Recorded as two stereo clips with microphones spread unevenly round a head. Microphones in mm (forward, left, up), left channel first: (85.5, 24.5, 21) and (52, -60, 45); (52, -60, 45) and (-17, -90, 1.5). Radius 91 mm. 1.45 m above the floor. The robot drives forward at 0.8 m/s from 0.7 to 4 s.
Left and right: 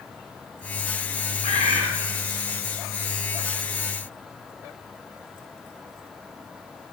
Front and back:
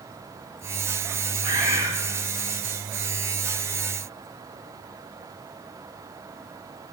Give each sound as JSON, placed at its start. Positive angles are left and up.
{"t": 1.4, "sound": "a bird", "azimuth_deg": 120, "distance_m": 4.5}